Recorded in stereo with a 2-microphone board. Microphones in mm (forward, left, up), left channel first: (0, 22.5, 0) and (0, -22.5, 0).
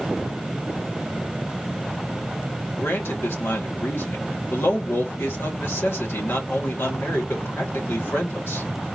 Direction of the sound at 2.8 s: 60° left (ahead or behind).